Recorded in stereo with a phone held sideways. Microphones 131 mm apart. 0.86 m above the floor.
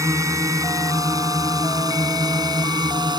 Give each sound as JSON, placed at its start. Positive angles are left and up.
{"t": 0.0, "sound": "a drone", "side_deg": -25}